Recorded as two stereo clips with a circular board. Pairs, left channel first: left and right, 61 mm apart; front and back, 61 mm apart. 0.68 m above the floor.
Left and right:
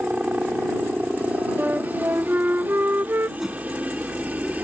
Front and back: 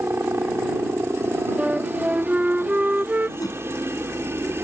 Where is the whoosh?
5° right.